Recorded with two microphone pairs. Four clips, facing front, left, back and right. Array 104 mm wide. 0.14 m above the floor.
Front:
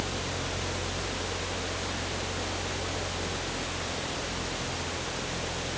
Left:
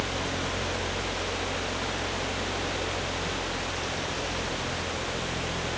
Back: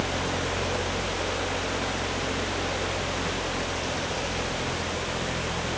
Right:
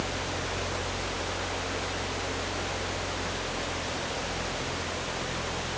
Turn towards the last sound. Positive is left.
No sound to turn to.